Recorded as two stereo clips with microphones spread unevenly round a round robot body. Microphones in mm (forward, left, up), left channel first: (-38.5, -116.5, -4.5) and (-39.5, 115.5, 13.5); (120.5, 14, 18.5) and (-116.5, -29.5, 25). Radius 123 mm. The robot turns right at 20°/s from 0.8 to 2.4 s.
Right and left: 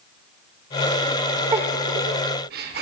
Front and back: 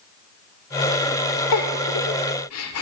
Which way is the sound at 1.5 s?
20° left.